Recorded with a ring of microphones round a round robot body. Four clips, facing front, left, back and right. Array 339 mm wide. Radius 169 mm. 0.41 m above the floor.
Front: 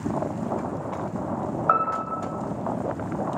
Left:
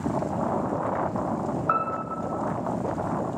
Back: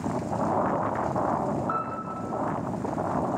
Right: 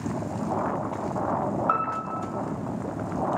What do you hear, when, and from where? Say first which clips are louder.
1.7 s a piano: even, front 7 dB; 15° right, 1.2 m